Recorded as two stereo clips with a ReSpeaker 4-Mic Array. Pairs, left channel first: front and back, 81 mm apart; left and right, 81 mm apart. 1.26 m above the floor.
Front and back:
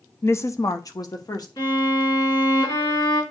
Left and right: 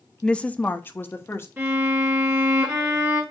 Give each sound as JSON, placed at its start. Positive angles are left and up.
{"t": 0.2, "sound": "a woman speaking", "azimuth_deg": 15, "distance_m": 0.5}
{"t": 1.6, "sound": "a violin", "azimuth_deg": -25, "distance_m": 4.5}